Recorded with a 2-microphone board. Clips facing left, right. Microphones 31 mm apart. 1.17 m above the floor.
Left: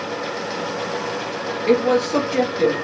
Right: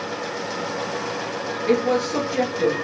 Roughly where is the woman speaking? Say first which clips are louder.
Left 3 dB; left.